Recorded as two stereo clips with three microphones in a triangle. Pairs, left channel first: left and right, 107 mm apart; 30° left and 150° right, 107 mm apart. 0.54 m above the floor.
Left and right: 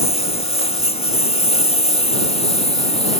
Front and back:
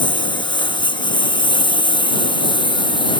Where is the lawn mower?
70° left.